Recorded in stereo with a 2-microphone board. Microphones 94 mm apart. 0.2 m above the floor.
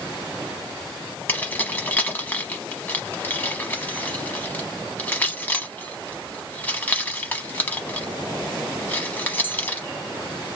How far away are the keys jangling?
About 0.9 m.